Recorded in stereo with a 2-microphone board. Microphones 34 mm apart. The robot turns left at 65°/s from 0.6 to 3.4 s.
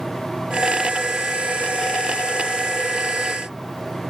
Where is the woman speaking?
I don't hear a woman speaking.